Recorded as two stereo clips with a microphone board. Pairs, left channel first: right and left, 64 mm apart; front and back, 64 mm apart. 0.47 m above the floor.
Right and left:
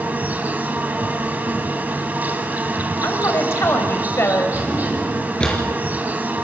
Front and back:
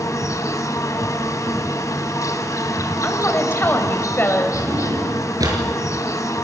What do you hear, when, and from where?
0.0 s an insect: 30° left, 1.9 m
3.0 s a woman speaking: 50° right, 2.5 m
4.5 s a drawer: 165° right, 4.5 m